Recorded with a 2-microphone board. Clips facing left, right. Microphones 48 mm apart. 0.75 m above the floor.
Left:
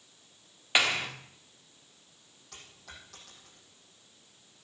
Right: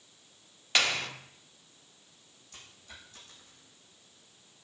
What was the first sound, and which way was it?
A clap, 15° left (ahead or behind).